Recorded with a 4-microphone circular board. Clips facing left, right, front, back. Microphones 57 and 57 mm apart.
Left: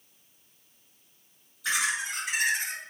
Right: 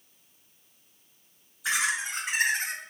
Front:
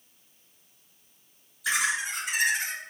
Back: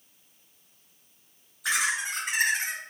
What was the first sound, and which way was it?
Laughter, 155° right.